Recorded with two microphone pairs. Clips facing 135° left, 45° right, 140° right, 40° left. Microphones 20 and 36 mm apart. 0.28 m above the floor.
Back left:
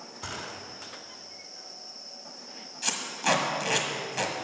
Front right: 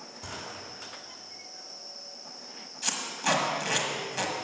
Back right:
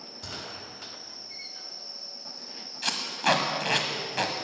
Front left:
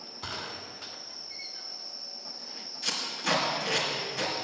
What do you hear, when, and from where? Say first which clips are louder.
0.2 s a gunshot: back left 3 dB, front left 2 dB; 85° left, 1.9 m
2.8 s tape being pulled: back left 1 dB, back right 5 dB; 145° right, 1.4 m